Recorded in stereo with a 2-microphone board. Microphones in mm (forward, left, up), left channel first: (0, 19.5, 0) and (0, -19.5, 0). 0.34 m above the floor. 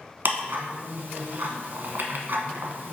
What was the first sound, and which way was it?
Ticking, 55° right (ahead or behind).